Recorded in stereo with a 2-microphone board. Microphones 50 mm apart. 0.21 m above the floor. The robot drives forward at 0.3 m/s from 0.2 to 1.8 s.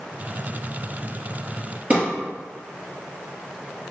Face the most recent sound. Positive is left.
turn(degrees=-30)  # may be behind; listen again after turning